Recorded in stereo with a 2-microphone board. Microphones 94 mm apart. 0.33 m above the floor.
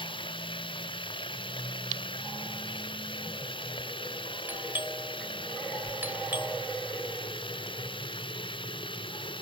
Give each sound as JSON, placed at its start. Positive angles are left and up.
{"t": 0.0, "sound": "running water", "side_deg": 60}
{"t": 4.5, "sound": "a doorbell", "side_deg": -20}